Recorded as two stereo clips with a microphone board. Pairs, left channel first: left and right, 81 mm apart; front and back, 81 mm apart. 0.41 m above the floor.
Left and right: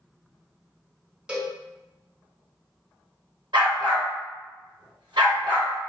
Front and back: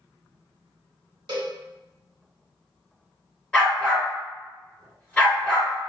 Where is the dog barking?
75° right, 1.7 m.